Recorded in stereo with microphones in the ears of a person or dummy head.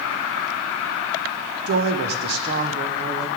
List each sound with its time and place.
1.7 s a woman speaking: 50° right (ahead or behind), 0.7 m